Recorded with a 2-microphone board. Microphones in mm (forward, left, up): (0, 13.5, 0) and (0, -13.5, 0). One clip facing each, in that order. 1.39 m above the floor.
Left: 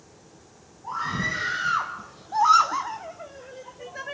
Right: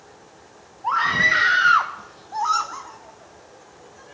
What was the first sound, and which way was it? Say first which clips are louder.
A scream: right 10 dB; 65° right (ahead or behind).